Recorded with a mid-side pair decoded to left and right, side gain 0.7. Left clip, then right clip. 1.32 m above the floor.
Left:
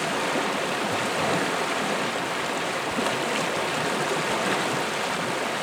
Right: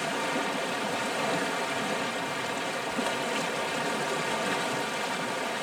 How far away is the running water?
About 0.7 m.